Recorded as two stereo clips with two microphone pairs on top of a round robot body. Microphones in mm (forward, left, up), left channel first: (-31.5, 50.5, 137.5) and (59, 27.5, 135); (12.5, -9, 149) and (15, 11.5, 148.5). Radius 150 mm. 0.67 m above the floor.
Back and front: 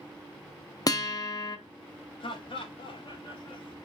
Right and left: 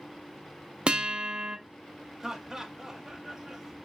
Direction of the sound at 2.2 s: 155° left.